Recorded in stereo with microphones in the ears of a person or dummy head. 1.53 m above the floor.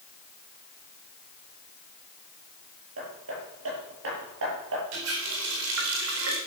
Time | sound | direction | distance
3.0 | hammering | 75° right (ahead or behind) | 8 m
4.9 | a running tap | 75° right (ahead or behind) | 4 m